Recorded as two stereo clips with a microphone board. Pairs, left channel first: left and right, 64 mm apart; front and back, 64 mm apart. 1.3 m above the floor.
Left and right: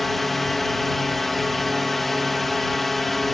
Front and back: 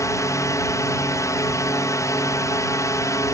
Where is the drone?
Straight ahead.